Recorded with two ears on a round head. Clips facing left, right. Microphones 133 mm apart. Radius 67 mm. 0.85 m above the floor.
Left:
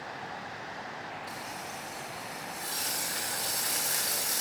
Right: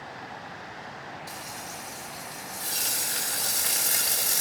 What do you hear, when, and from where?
1.3 s frying: 30° right (ahead or behind), 4.5 m